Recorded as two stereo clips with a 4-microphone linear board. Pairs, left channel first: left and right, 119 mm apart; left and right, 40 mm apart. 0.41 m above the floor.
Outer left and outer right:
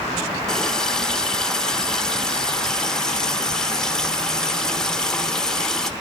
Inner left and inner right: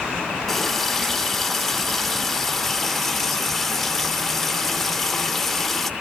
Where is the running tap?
5° left (ahead or behind), 0.7 m.